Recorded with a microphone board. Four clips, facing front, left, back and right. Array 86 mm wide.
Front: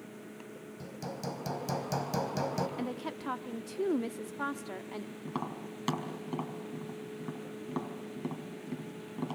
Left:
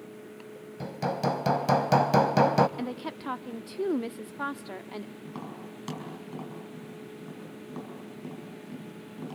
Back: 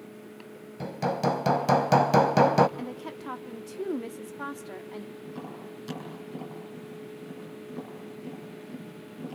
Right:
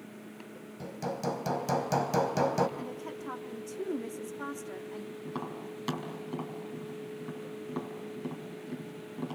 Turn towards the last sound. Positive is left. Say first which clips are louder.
# right 2 dB, front 1 dB
turn(degrees=-5)